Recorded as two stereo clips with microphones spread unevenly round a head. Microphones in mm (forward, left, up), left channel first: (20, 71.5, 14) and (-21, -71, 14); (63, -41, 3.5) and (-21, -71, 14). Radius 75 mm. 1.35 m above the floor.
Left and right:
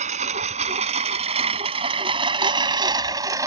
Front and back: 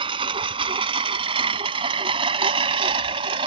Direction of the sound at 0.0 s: 150° right.